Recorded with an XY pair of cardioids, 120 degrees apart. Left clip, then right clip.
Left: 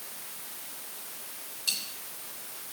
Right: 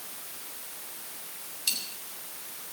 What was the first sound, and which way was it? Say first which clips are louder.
A dropped coin: even; 60° right.